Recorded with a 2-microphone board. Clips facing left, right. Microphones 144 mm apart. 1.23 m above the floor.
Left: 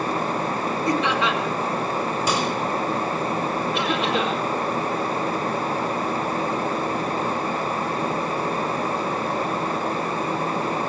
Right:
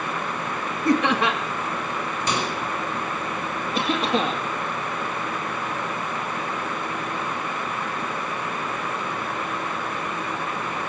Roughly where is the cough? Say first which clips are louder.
Right 3 dB; right.